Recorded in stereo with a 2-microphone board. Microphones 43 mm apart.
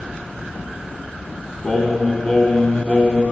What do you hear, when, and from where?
1.6 s singing: 15° left (ahead or behind), 1.7 m